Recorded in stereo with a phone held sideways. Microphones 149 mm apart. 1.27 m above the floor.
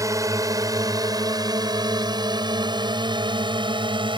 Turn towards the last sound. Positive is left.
turn(degrees=-35)  # may be behind; listen again after turning